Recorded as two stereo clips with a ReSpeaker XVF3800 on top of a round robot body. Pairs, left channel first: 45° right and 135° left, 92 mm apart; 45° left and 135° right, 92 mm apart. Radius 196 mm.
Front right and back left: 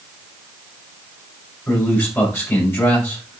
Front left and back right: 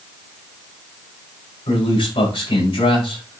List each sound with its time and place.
1.7 s a man speaking: 20° left, 6.5 m